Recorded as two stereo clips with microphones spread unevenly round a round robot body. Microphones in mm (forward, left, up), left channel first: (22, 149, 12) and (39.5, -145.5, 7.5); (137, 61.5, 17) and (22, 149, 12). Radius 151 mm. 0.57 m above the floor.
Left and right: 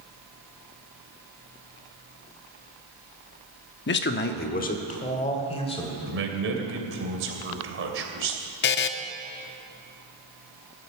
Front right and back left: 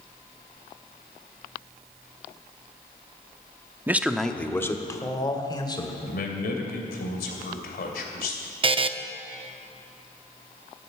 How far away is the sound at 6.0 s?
About 2.5 m.